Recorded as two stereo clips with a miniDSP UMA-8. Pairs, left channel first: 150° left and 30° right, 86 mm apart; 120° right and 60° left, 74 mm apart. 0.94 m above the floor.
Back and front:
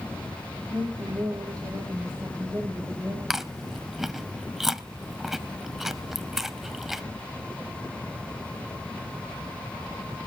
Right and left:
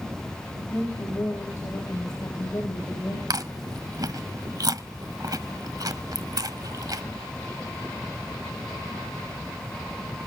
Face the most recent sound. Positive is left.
turn(degrees=55)